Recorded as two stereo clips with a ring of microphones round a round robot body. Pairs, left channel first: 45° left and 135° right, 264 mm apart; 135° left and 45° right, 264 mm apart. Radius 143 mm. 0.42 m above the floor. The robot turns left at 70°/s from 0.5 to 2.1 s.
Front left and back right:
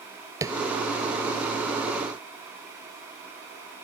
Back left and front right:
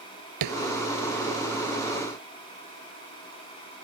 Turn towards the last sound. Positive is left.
turn(degrees=-170)